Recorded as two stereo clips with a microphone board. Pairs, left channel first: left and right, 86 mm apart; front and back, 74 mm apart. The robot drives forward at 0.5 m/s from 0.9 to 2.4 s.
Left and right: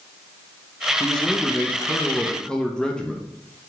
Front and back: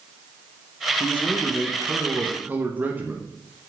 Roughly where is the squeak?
No squeak in this recording.